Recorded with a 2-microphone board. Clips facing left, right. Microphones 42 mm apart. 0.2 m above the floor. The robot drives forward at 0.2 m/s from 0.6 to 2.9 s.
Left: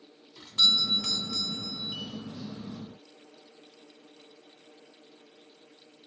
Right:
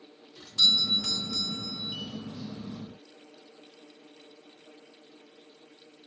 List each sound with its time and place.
0.4 s a doorbell: 30° left (ahead or behind), 1.7 m